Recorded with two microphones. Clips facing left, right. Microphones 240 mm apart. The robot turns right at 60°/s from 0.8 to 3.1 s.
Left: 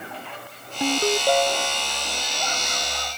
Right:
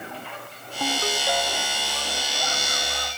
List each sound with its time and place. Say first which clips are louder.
0.8 s a ringtone: left 7 dB; 15° left; by 1.9 s 80° left